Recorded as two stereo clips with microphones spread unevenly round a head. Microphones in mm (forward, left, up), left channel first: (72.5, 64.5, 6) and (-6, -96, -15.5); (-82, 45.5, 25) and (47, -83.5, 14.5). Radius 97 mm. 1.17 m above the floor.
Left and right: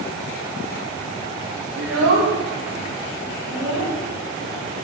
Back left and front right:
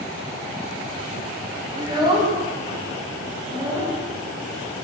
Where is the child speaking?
110° right, 1.0 m.